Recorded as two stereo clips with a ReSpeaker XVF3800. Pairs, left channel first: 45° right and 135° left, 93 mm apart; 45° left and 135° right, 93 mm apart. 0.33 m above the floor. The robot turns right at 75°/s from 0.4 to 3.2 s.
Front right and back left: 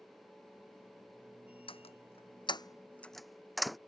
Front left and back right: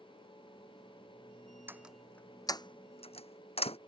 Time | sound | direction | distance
1.7 | a door slam | 70° right | ?